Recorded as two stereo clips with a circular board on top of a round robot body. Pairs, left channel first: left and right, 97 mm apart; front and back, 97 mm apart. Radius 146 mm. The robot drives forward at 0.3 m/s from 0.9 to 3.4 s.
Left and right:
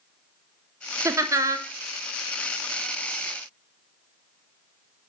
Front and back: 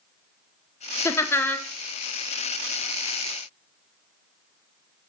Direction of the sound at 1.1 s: 45° right.